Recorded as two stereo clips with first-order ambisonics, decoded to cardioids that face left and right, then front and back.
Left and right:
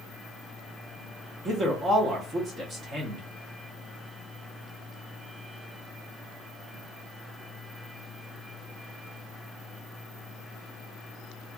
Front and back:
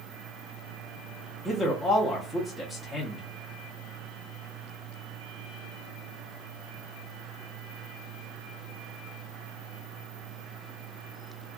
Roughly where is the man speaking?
Right.